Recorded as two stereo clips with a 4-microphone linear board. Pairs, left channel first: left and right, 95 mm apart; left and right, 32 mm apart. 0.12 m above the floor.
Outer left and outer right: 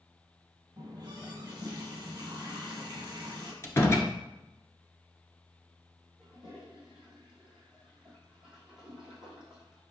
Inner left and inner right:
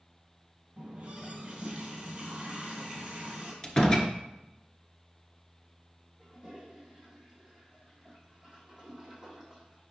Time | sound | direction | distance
0.8 | a running tap | 40° right (ahead or behind) | 2.5 m
3.6 | a door slam | 30° left (ahead or behind) | 1.4 m
6.2 | a toilet flushing | 5° right (ahead or behind) | 3 m